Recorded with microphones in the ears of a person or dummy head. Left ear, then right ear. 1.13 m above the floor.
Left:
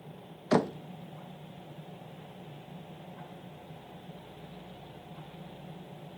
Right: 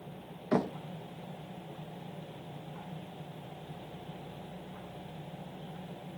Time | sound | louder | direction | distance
0.5 | knocking | left 4 dB | 80° left | 0.7 m